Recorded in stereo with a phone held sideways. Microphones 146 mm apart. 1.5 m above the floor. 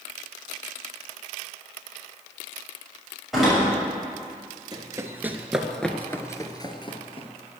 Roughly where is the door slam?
Centre.